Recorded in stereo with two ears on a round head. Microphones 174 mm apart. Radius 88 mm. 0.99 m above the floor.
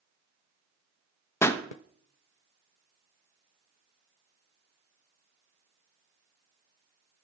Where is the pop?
15° left (ahead or behind), 0.6 m.